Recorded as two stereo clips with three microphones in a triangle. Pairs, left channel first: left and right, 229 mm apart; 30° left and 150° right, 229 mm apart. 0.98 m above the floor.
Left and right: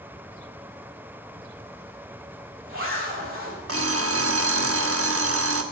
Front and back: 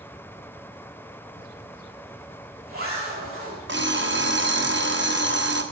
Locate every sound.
1.4 s a zipper: 100° right, 5.5 m
3.7 s an alarm clock: 110° right, 0.9 m